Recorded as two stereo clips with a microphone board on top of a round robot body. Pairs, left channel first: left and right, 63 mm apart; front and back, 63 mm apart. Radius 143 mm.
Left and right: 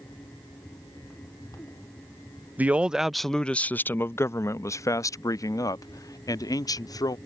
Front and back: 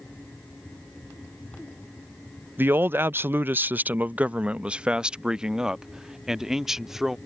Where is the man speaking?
140° right; by 7.2 s 95° left.